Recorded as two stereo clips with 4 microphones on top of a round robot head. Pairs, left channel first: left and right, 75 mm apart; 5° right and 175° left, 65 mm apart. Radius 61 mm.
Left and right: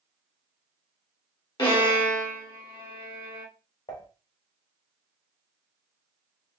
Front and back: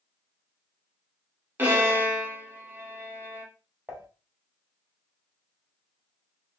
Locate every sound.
1.6 s a violin: 115° left, 1.9 m
3.9 s dishes clattering: 100° left, 1.4 m